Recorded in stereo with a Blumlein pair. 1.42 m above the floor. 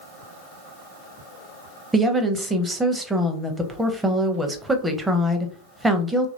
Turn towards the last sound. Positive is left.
turn(degrees=-5)